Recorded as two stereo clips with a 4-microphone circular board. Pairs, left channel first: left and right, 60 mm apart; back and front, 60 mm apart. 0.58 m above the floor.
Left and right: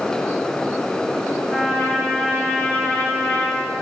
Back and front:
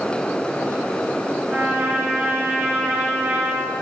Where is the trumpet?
40° left, 1.7 m.